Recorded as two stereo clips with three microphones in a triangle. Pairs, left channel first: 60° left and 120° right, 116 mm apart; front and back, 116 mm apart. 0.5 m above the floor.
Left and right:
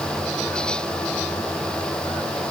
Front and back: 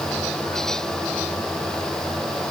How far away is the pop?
I don't hear a pop.